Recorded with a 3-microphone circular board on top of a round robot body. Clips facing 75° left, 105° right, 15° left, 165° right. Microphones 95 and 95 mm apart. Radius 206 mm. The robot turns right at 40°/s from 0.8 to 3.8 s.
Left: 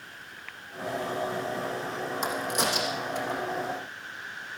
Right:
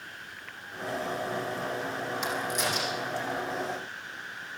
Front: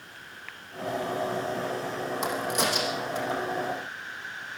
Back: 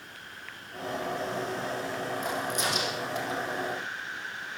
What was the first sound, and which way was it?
A crack, 30° left.